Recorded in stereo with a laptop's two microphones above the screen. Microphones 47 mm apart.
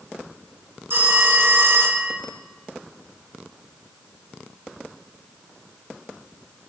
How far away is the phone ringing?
About 1.5 m.